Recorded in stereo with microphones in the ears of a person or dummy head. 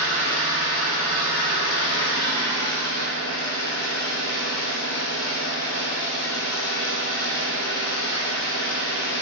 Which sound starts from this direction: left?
An engine running, at 0.0 s.